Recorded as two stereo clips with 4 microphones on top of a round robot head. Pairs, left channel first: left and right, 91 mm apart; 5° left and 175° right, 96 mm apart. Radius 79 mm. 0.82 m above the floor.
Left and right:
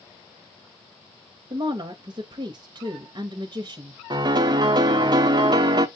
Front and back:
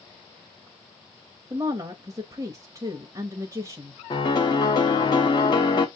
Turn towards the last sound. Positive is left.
turn(degrees=-45)